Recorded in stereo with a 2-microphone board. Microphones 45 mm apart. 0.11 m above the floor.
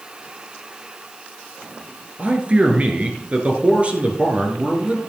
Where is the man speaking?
30° right (ahead or behind), 2.5 m.